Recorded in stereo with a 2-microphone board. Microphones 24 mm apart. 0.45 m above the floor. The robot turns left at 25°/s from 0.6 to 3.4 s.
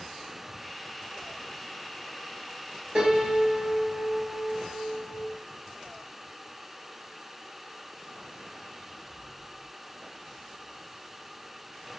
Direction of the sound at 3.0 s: 25° right (ahead or behind).